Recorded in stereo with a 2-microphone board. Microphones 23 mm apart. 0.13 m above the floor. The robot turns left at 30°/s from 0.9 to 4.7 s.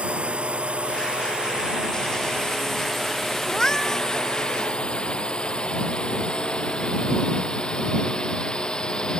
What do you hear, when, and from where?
0.0 s a drone: 60° right (ahead or behind); by 9.2 s 35° left (ahead or behind)
3.5 s a cat meowing: 35° left (ahead or behind); by 4.1 s 15° left (ahead or behind)